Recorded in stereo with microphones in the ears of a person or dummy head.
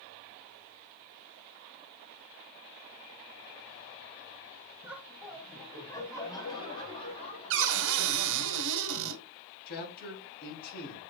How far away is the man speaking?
About 3.5 m.